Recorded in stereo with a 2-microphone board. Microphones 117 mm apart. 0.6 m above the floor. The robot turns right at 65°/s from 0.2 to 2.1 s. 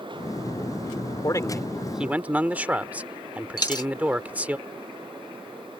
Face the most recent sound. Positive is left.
turn(degrees=35)  # may be behind; listen again after turning